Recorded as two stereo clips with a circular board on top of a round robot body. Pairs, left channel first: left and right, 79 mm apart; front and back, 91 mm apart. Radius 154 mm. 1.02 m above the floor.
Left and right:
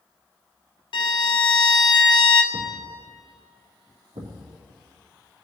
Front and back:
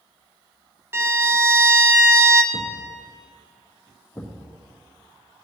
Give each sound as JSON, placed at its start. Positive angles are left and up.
{"t": 0.9, "sound": "a violin", "azimuth_deg": 115, "distance_m": 0.7}
{"t": 2.5, "sound": "a thud", "azimuth_deg": -85, "distance_m": 3.0}